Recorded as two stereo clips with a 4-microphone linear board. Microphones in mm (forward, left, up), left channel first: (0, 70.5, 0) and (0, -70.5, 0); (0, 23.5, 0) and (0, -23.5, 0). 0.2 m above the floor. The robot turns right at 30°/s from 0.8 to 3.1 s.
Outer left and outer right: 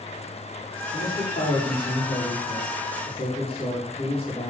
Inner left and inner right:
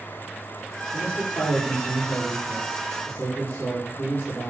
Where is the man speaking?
70° left, 8 m; by 4.5 s 135° left, 8 m.